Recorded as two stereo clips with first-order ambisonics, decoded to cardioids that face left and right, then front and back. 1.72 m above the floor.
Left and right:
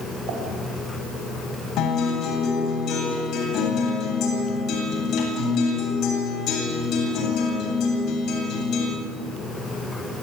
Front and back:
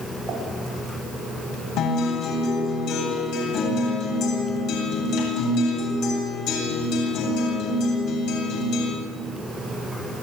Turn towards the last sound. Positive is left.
turn(degrees=40)